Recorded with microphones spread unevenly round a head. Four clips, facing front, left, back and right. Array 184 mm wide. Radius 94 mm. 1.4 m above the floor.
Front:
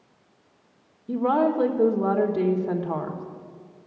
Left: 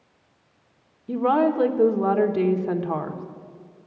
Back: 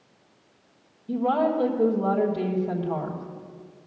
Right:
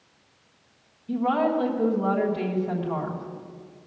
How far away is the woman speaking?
About 1.4 m.